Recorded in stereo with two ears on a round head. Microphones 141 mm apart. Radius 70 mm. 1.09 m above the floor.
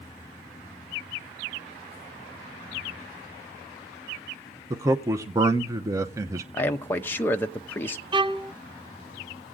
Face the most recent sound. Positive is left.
turn(degrees=-30)  # may be behind; listen again after turning